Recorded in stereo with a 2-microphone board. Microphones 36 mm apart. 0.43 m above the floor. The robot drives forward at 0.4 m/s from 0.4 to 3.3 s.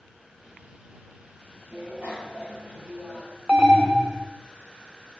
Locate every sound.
1.7 s a bicycle bell: 85° right, 8.5 m
3.5 s an alarm: 20° right (ahead or behind), 1.3 m